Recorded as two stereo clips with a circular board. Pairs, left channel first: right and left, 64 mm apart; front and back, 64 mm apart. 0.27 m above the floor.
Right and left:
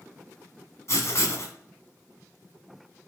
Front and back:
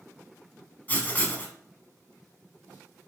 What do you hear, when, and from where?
0.9 s writing: 60° right, 0.9 m